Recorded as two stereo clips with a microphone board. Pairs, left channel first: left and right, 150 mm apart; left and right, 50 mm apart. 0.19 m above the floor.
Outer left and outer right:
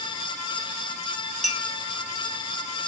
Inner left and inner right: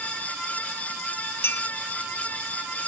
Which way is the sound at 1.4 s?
55° left (ahead or behind).